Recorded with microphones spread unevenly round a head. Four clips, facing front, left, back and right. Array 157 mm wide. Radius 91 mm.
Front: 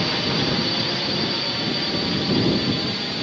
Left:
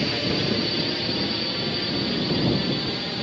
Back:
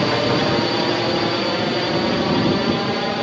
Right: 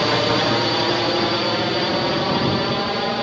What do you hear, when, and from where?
0.0 s a drone: 145° right; by 3.2 s 135° right